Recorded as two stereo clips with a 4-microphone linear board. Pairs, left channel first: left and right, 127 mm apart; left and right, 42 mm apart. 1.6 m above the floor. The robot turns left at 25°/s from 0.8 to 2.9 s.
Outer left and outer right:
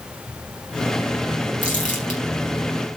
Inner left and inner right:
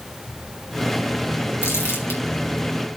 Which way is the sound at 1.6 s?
85° left.